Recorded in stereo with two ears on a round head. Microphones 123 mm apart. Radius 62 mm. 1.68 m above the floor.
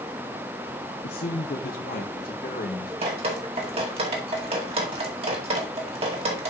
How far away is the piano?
I don't hear a piano.